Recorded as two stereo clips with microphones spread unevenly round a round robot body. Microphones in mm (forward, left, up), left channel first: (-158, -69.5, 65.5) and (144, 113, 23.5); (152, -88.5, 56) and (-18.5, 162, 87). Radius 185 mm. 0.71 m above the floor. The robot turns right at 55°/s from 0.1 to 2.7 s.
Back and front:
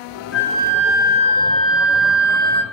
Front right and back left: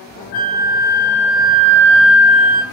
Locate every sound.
0.3 s a flute: 55° right, 2.5 m; by 2.6 s 70° left, 2.5 m